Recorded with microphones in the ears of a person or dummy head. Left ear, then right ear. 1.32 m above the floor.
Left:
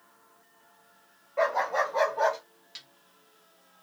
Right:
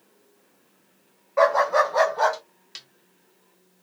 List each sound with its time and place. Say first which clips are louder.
1.4 s a dog barking: right 7 dB; 55° right (ahead or behind), 2 m; by 2.4 s 40° right (ahead or behind), 2.5 m
2.8 s a snare drum: right 4 dB; 20° right (ahead or behind), 0.7 m